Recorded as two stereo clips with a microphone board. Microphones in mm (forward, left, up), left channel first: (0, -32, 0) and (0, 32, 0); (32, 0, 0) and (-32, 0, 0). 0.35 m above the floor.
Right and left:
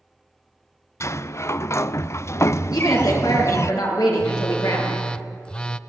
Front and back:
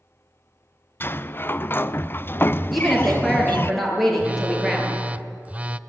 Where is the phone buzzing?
150° right, 0.6 m.